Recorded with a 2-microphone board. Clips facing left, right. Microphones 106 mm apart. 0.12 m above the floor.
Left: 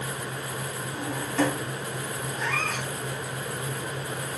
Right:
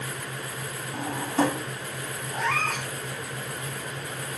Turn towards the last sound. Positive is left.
turn(degrees=-70)  # may be behind; listen again after turning